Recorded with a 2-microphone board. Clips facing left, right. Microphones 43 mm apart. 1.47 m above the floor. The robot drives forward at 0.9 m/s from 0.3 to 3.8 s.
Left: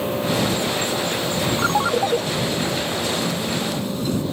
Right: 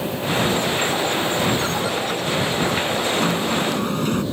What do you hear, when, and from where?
1.6 s a ringtone: 40° left (ahead or behind); by 2.2 s 45° left (ahead or behind)
3.1 s a sliding door: 55° right (ahead or behind); by 4.2 s 50° right (ahead or behind)